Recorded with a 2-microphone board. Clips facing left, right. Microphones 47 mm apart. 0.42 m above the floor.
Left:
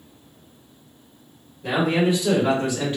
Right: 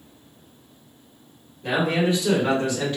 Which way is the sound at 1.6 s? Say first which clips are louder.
Left 1 dB; centre (ahead or behind).